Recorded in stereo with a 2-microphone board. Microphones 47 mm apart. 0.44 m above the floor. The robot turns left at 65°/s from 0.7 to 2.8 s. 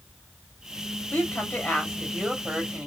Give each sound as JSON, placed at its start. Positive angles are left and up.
{"t": 1.1, "sound": "a woman speaking", "azimuth_deg": 70, "distance_m": 1.9}